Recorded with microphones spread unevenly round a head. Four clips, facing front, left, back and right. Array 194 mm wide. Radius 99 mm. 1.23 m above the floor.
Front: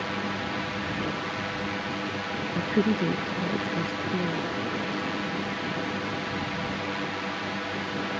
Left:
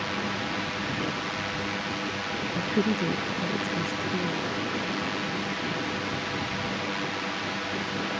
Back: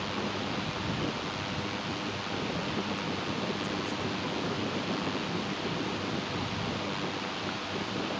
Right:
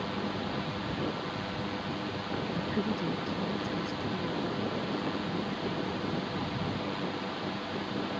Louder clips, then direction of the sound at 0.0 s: Left 3 dB, front 3 dB; 30° left.